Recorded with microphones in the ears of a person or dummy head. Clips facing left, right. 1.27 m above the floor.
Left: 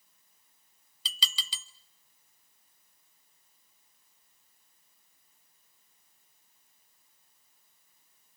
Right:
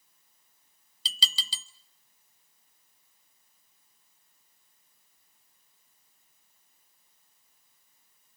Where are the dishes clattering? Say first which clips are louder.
Right 2 dB; 30° right (ahead or behind), 1.2 m.